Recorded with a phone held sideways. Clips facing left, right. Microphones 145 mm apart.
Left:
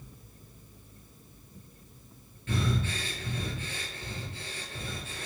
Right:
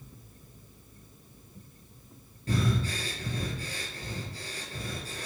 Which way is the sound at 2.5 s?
35° right (ahead or behind).